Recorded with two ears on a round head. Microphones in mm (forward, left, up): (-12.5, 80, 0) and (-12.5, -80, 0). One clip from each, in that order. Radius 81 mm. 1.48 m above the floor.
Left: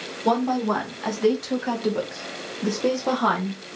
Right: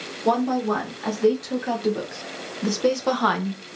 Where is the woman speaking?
25° left (ahead or behind), 2 m; by 3.6 s 55° right (ahead or behind), 1.0 m.